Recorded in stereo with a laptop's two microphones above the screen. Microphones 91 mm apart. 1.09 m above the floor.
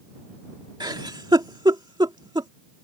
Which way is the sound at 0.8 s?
55° right (ahead or behind).